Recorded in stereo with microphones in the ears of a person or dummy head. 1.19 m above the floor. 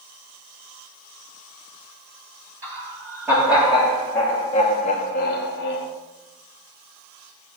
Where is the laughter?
10° right (ahead or behind), 2 m; by 5.9 s 70° left (ahead or behind), 1.2 m.